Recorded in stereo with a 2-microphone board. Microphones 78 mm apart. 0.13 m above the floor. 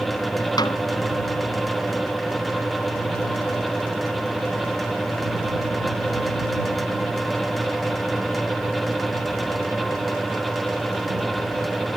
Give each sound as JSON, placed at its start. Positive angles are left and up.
{"t": 0.6, "sound": "a snare drum", "side_deg": 60}